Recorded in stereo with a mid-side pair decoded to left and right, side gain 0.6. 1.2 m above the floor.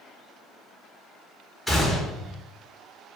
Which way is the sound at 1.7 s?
10° left.